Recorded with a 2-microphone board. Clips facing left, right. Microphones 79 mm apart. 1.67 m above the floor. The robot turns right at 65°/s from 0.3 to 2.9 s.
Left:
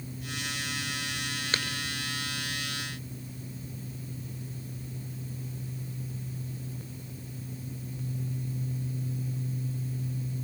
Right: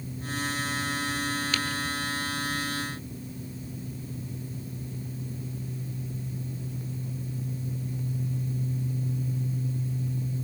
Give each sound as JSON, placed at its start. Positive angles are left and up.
{"t": 1.5, "sound": "tapping", "side_deg": 35, "distance_m": 6.0}